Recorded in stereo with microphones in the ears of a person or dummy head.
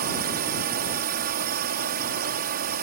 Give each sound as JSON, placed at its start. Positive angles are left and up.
{"t": 0.0, "sound": "a drone", "side_deg": -50}